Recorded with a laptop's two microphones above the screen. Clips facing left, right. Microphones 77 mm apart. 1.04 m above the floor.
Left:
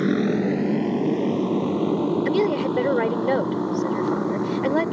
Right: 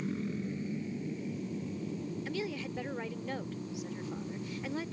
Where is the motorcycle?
80° left; by 4.9 s 70° left (ahead or behind).